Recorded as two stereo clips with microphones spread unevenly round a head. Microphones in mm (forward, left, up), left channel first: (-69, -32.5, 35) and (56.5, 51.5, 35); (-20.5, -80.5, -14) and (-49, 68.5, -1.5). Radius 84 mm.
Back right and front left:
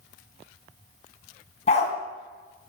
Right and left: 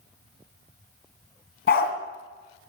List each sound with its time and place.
1.7 s a dog barking: 95° right, 2.5 m